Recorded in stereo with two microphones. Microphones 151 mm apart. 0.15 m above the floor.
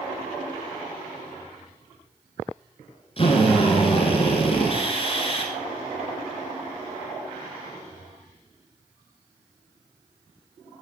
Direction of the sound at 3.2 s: 40° left (ahead or behind).